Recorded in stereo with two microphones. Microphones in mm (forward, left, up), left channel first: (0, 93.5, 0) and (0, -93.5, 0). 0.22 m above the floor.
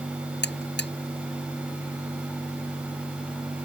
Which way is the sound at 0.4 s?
65° left (ahead or behind).